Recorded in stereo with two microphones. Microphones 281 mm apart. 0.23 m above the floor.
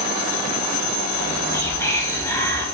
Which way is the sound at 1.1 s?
10° left (ahead or behind).